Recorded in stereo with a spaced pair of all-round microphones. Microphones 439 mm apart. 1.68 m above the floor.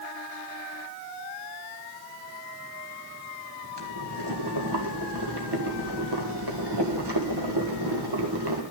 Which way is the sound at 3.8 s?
65° right (ahead or behind).